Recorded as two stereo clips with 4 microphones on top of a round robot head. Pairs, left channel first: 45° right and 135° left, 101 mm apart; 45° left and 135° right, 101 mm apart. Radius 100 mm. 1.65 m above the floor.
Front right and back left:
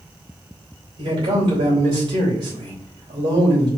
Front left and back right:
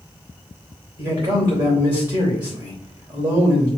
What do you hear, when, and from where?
1.0 s a man speaking: straight behind, 2.5 m